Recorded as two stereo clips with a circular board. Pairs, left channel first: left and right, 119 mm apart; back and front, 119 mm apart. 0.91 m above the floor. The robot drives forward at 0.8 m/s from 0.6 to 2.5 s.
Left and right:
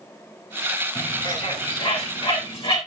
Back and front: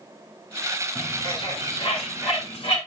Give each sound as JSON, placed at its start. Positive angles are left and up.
{"t": 0.9, "sound": "a bird", "azimuth_deg": 130, "distance_m": 5.0}